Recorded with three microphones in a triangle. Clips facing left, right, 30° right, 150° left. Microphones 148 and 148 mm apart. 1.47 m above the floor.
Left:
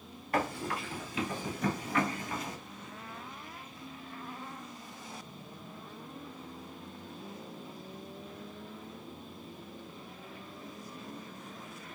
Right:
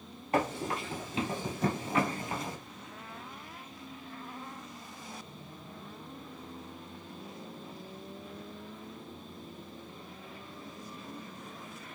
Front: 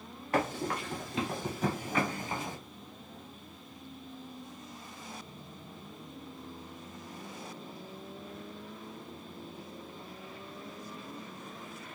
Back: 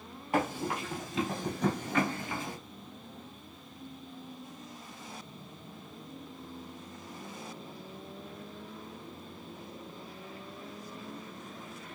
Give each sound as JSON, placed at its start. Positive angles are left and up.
{"t": 0.3, "sound": "running footsteps", "azimuth_deg": -145, "distance_m": 1.8}